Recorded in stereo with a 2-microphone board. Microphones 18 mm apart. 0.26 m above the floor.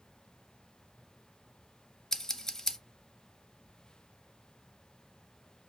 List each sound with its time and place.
2.1 s scissors: 30° left (ahead or behind), 0.5 m